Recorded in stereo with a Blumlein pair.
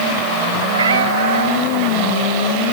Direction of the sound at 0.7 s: 70° right.